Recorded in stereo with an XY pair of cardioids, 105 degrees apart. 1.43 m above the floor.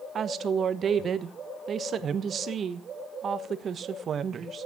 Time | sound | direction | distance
0.1 | a woman speaking | 50° right | 1.2 m